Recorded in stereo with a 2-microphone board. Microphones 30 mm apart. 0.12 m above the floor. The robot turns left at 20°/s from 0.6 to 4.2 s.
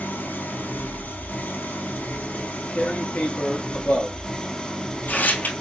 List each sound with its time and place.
0.0 s an engine running: 100° left, 1.5 m; by 5.6 s 25° left, 1.5 m
2.3 s tearing paper: 45° left (ahead or behind), 1.2 m; by 5.5 s 65° left (ahead or behind), 1.2 m